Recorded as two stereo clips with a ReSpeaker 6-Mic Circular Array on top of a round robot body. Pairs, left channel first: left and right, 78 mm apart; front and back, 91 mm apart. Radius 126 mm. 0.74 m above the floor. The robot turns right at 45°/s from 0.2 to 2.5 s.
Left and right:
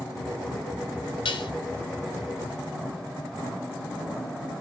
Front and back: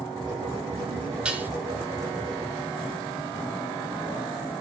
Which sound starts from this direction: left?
Dishes clattering, at 1.2 s.